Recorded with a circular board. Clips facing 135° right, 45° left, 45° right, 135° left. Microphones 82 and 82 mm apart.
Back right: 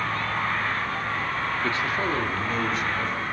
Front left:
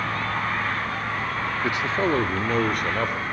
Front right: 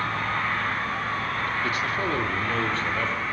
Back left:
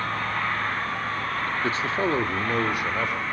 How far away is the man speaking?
About 1.3 m.